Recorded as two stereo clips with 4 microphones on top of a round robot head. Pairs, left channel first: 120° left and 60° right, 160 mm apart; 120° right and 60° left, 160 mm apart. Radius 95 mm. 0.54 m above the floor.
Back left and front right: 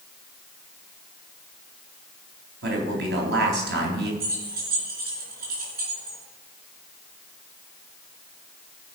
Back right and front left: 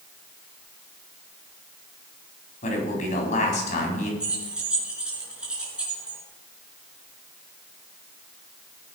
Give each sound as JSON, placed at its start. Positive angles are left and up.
{"t": 2.6, "sound": "a man speaking", "azimuth_deg": -75, "distance_m": 4.0}
{"t": 4.2, "sound": "keys jangling", "azimuth_deg": -25, "distance_m": 4.5}